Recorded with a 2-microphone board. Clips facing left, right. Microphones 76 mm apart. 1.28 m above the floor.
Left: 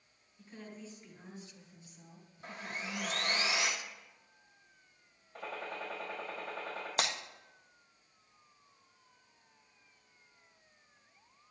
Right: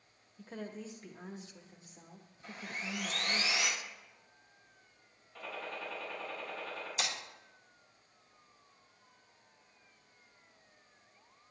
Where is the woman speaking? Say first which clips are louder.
Right 5 dB; 85° right, 1.5 m; by 3.4 s 45° right (ahead or behind), 2.5 m.